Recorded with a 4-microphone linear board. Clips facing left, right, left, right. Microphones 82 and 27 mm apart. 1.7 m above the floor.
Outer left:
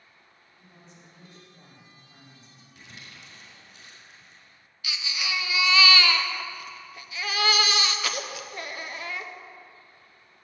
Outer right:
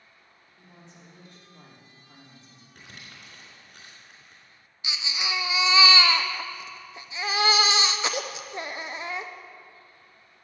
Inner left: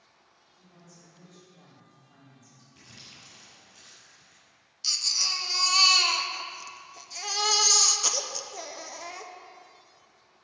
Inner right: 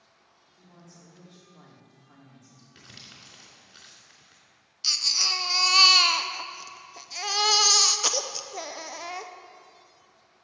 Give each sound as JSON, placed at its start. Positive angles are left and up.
{"t": 0.6, "sound": "a woman speaking", "side_deg": -80, "distance_m": 4.0}
{"t": 2.8, "sound": "crumpling", "side_deg": -60, "distance_m": 3.5}
{"t": 4.8, "sound": "a baby crying", "side_deg": -20, "distance_m": 0.5}